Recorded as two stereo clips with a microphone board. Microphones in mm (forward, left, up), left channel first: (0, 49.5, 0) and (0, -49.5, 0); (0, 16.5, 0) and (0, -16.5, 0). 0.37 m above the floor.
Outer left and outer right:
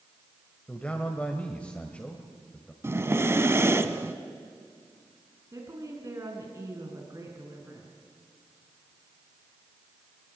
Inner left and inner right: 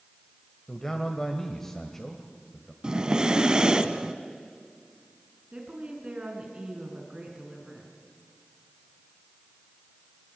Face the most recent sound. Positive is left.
turn(degrees=-30)  # may be behind; listen again after turning